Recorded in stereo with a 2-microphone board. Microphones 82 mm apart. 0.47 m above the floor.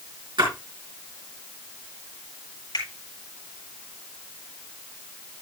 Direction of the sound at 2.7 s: 60° left (ahead or behind).